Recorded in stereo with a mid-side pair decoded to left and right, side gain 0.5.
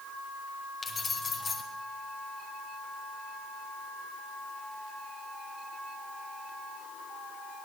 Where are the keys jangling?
40° left, 4.5 m.